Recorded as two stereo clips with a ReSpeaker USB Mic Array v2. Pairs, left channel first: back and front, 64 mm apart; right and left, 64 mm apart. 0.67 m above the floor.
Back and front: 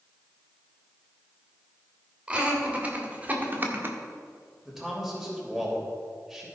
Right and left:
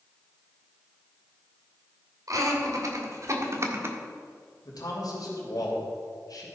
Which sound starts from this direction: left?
Laughter, at 2.3 s.